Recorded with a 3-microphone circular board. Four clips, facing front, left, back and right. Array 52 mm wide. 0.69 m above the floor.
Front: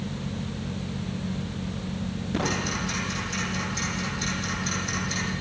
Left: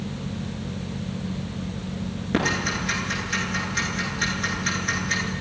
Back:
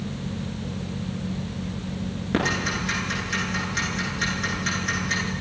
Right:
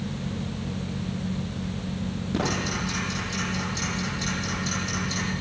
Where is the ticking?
135° left, 9.5 m.